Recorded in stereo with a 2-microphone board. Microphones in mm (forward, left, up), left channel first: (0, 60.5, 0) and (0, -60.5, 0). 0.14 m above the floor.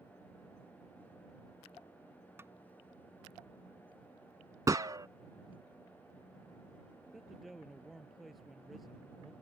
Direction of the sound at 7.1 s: Centre (ahead or behind).